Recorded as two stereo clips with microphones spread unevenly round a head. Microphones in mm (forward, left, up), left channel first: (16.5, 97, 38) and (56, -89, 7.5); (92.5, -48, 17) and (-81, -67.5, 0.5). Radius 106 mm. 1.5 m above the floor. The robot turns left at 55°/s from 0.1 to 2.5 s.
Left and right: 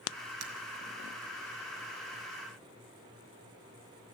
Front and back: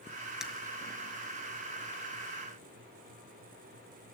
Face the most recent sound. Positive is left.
turn(degrees=160)